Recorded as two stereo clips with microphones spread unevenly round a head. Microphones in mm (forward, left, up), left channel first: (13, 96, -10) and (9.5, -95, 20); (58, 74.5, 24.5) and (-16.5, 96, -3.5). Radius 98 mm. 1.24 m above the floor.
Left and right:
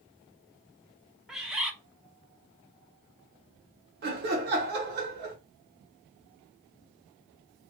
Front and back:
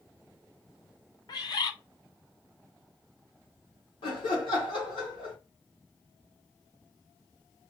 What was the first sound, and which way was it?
A bird, 5° left.